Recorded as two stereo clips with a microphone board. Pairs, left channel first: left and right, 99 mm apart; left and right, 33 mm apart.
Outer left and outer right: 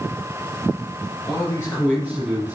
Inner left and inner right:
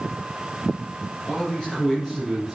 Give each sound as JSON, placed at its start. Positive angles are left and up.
{"t": 1.3, "sound": "a man speaking", "side_deg": 35, "distance_m": 2.5}